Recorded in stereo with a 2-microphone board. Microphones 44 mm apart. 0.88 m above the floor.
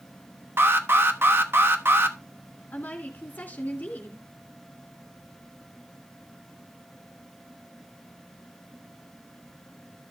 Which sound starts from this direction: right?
An alarm, at 0.6 s.